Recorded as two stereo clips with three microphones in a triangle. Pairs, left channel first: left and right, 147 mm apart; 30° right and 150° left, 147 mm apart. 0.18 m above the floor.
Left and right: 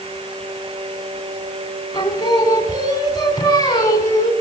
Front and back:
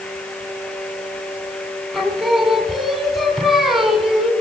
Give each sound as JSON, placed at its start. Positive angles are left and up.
{"t": 1.9, "sound": "singing", "azimuth_deg": 60, "distance_m": 1.7}